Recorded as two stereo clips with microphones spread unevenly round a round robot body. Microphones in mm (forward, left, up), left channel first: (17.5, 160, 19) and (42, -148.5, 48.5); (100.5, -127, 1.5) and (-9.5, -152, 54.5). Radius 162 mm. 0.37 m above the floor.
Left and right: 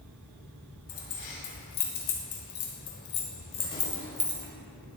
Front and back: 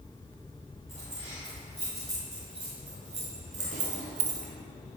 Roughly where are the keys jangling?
Left.